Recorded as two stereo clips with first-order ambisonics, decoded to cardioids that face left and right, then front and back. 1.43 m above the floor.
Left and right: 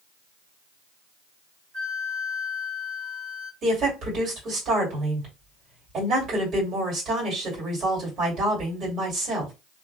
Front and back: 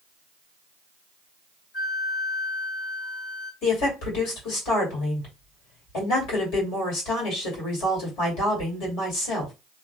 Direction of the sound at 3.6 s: 25° right.